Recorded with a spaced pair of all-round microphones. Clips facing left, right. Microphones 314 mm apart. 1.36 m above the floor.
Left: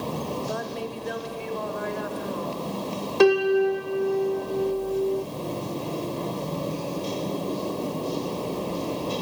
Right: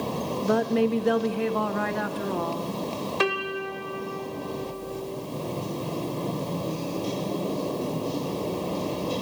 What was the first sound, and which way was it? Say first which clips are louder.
A woman speaking: right 9 dB; 70° right (ahead or behind).